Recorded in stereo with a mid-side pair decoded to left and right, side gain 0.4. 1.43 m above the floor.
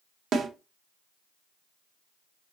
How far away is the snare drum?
About 0.8 m.